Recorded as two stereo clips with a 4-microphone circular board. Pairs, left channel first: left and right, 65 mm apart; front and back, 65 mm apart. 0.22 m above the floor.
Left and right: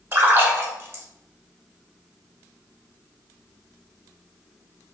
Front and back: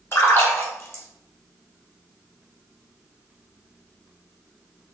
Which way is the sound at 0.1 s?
40° right.